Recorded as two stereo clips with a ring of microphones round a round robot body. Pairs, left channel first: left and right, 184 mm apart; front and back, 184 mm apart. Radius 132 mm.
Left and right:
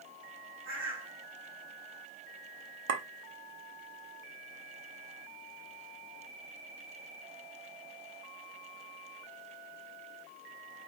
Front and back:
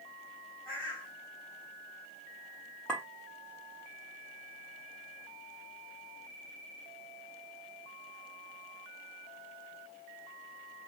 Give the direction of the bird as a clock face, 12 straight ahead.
3 o'clock.